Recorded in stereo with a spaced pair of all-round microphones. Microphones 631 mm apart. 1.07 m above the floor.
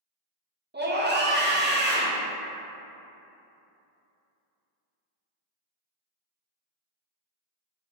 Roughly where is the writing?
I don't hear writing.